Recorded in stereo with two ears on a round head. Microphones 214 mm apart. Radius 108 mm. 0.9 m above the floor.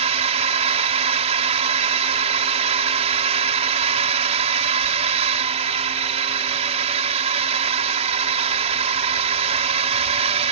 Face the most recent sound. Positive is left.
turn(degrees=-25)  # may be behind; listen again after turning